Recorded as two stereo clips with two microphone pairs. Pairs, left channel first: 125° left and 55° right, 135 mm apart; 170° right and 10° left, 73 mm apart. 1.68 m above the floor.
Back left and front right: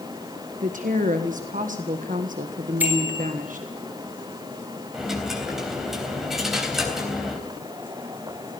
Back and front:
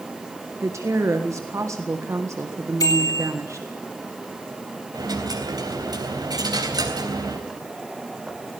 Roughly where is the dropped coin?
Ahead left.